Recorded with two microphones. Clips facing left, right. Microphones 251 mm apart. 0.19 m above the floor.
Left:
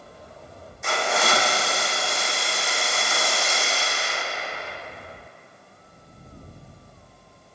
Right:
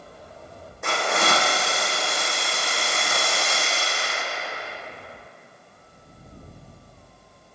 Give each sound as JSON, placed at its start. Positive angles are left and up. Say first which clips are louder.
{"t": 0.8, "sound": "a hiss", "louder": "even", "side_deg": -75, "distance_m": 3.5}